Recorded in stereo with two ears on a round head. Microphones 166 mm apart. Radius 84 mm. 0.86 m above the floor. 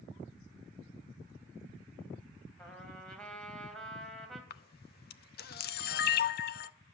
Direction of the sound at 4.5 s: 55° left (ahead or behind).